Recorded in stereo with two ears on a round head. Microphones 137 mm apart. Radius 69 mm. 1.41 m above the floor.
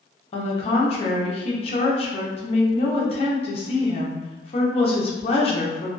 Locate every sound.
0.3 s a woman speaking: 40° left (ahead or behind), 0.6 m